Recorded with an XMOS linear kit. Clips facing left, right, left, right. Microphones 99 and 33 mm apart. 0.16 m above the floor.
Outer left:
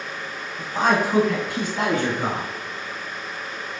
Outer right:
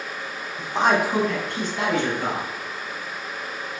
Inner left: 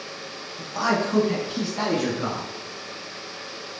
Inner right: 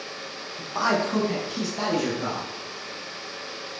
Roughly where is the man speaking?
Right.